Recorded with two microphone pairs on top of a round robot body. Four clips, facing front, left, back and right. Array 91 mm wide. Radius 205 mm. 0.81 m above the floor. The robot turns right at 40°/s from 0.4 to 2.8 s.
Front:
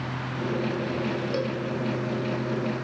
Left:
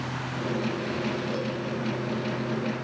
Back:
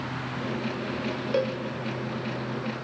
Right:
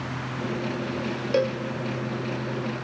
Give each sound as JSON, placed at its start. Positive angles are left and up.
{"t": 1.3, "sound": "a cowbell", "azimuth_deg": -125, "distance_m": 1.2}